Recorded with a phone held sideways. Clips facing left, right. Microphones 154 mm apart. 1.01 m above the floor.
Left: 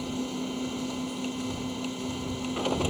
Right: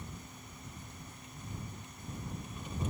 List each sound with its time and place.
0.0 s a machine running: 85° left